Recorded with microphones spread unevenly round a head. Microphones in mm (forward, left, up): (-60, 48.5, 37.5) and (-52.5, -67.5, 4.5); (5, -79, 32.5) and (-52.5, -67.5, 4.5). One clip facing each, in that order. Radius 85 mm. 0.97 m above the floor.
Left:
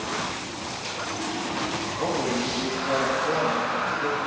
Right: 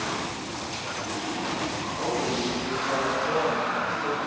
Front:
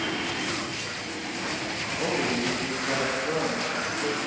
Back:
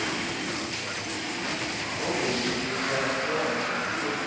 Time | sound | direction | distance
2.0 | a man speaking | 35° left | 2 m